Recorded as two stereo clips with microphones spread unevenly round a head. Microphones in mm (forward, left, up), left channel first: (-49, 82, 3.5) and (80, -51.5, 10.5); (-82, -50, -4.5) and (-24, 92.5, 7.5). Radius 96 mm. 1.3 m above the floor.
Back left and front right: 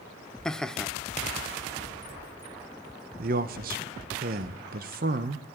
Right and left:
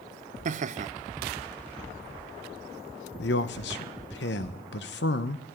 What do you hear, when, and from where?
0.5 s laughter: 50° left, 0.6 m
3.2 s a man speaking: 90° right, 0.7 m